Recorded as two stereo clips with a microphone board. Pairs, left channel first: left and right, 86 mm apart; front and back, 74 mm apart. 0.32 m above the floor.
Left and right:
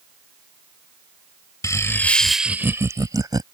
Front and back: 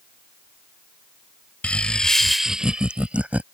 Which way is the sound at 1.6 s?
65° left.